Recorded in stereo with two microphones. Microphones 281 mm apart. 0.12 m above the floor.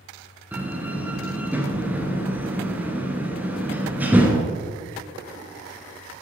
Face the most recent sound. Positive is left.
turn(degrees=-5)  # may be behind; listen again after turning